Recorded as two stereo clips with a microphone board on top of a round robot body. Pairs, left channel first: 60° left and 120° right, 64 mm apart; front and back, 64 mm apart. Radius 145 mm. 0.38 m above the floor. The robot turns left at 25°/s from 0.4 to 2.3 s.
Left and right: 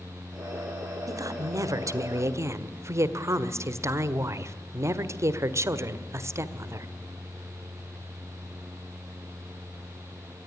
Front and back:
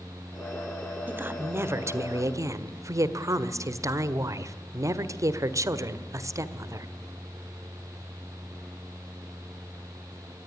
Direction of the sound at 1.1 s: 120° right.